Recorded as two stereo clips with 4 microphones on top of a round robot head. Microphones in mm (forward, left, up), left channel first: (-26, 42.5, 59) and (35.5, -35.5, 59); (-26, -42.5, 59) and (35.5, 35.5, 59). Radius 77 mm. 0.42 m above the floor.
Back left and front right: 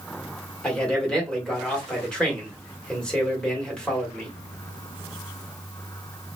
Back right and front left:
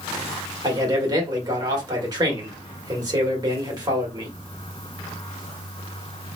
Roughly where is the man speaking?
Ahead left.